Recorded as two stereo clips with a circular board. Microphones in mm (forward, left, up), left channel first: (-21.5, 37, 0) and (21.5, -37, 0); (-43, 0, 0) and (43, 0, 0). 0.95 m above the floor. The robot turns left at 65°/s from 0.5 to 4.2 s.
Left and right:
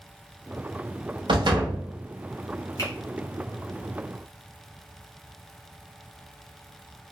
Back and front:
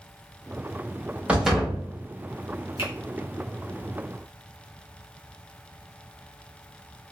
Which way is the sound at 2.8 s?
170° left.